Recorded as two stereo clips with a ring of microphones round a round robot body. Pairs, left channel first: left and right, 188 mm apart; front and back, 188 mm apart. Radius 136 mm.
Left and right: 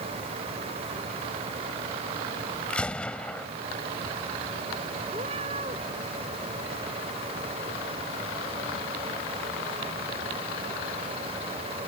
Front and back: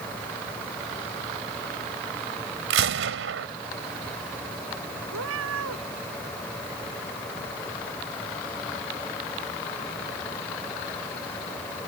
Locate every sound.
2.7 s a gunshot: 175° left
5.1 s a cat meowing: 160° right